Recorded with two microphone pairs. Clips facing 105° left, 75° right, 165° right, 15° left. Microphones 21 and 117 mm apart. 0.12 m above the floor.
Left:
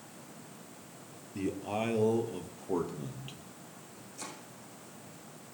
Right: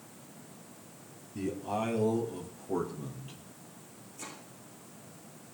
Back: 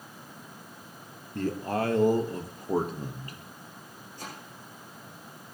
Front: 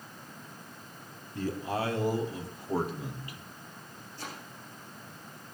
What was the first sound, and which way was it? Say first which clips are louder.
A man speaking: even, back 3 dB; 165° left.